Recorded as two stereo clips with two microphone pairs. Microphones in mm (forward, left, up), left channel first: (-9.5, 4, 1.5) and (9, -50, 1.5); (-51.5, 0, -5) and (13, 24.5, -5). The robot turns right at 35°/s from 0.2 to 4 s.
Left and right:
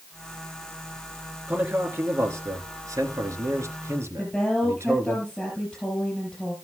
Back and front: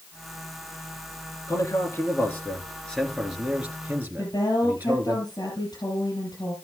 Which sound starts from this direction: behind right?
A man speaking, at 1.5 s.